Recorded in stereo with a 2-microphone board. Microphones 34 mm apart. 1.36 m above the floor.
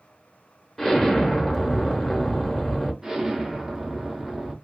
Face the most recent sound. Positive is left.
turn(degrees=-15)  # may be behind; listen again after turning